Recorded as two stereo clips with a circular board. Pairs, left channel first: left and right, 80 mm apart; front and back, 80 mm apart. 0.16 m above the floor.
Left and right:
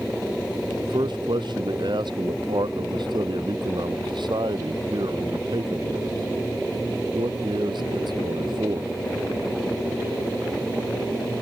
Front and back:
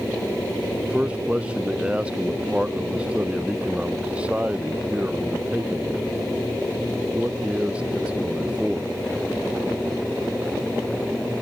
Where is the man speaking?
105° right.